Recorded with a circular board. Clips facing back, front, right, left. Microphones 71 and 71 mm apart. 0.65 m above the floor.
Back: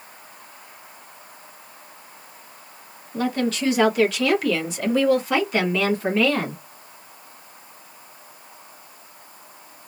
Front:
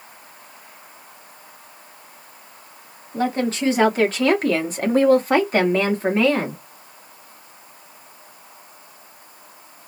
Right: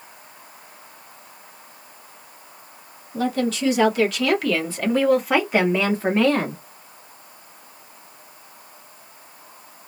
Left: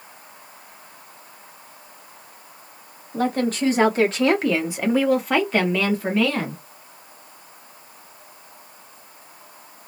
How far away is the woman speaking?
About 1.5 m.